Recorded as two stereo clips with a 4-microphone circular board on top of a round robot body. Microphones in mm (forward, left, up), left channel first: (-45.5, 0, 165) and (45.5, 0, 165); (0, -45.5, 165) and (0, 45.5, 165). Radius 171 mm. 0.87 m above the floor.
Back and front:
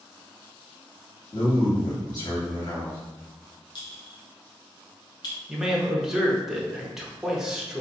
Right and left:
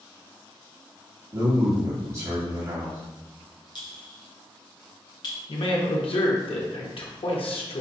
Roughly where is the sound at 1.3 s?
Behind left.